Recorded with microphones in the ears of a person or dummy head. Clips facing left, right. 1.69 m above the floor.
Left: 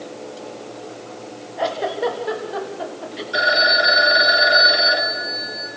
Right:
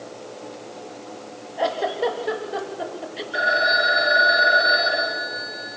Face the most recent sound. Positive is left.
turn(degrees=55)  # may be behind; listen again after turning